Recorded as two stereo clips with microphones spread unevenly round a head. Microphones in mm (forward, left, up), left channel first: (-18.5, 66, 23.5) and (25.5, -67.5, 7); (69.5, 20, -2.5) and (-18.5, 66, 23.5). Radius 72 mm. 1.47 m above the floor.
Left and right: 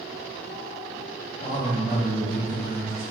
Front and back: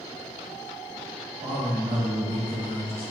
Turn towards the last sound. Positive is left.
turn(degrees=130)